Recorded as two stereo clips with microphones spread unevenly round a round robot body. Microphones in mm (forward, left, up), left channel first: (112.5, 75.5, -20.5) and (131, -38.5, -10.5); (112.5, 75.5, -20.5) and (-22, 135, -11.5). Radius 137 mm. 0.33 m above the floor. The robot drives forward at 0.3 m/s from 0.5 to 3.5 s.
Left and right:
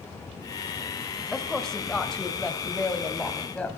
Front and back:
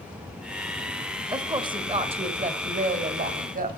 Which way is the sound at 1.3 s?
170° left.